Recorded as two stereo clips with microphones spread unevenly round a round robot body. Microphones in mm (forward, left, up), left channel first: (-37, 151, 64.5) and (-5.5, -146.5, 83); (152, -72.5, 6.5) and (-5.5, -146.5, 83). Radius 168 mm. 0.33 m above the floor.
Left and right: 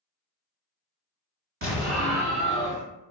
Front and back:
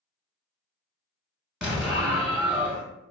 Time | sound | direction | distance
1.6 | an explosion | 40° right | 1.8 m